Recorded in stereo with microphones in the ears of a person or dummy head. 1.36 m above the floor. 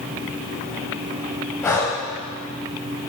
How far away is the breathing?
About 1.6 m.